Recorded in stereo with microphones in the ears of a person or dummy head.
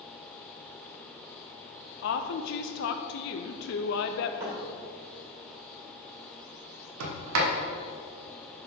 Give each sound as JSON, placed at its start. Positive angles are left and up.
{"t": 2.0, "sound": "a woman speaking", "side_deg": 65, "distance_m": 0.6}
{"t": 4.4, "sound": "a thud", "side_deg": -15, "distance_m": 1.8}
{"t": 7.0, "sound": "a sliding door", "side_deg": -85, "distance_m": 1.1}